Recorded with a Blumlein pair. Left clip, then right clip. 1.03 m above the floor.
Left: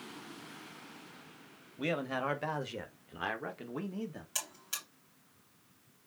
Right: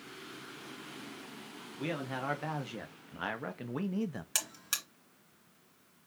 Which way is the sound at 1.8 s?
10° left.